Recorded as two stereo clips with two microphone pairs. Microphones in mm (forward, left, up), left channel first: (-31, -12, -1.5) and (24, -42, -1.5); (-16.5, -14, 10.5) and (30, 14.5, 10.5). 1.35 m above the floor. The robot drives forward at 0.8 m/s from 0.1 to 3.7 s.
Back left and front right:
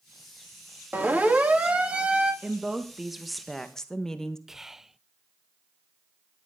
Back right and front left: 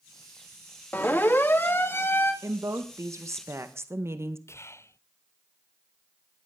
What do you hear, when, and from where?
0.9 s a siren: 90° right, 2.5 m; by 2.3 s 100° right, 3 m
2.4 s a woman speaking: 45° left, 2 m; by 4.4 s 70° left, 1.6 m
4.5 s whispering: 110° right, 0.5 m